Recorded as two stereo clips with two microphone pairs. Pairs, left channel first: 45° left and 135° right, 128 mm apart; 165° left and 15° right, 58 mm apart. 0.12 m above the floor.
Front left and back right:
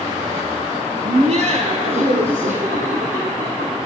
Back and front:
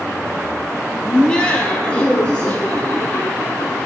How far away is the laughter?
About 2 m.